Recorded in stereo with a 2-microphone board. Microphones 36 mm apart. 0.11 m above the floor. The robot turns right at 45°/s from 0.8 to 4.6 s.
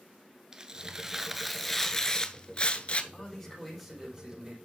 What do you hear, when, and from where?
0.5 s tearing paper: 30° right, 0.7 m; by 3.0 s 70° left, 0.7 m
3.1 s a man speaking: 150° left, 6.5 m; by 4.6 s 145° right, 6.5 m